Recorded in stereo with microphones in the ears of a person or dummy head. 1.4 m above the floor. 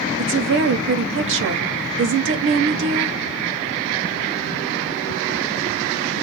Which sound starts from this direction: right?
A woman speaking, at 0.2 s.